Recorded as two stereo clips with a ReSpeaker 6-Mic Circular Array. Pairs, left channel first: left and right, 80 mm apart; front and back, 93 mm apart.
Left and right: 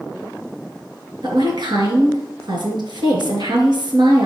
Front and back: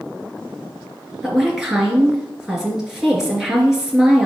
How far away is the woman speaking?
About 3.5 m.